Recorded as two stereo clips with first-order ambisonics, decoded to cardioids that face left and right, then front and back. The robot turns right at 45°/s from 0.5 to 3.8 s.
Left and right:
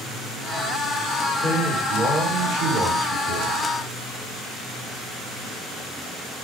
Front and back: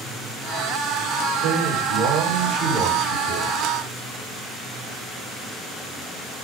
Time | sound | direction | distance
1.4 | a man speaking | 165° left | 2.5 m